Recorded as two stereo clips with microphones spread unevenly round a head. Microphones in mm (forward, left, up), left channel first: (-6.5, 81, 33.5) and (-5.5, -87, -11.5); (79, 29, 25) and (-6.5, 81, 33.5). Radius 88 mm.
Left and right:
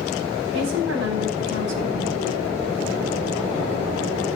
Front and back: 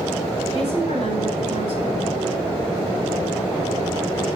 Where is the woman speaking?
90° right, 9.5 m.